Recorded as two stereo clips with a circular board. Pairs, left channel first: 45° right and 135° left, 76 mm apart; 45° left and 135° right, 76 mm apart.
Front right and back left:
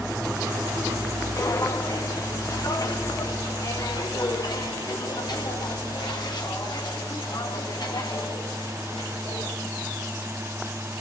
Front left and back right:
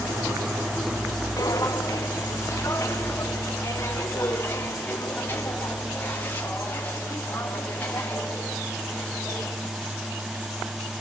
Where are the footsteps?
Straight ahead, 1.5 m; by 9.5 s 25° right, 5.5 m.